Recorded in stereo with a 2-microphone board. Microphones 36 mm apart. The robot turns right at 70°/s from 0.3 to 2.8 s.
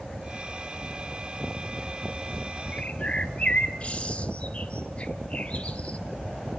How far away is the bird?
About 0.9 m.